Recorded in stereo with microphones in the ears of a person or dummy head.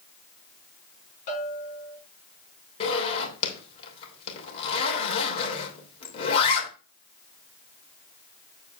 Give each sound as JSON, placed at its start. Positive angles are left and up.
{"t": 1.3, "sound": "a bell", "side_deg": 40, "distance_m": 6.0}
{"t": 2.8, "sound": "a zipper", "side_deg": 35, "distance_m": 3.0}